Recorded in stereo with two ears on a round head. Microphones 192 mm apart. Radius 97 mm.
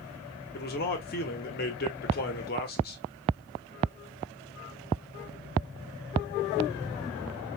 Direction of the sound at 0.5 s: 45° left (ahead or behind).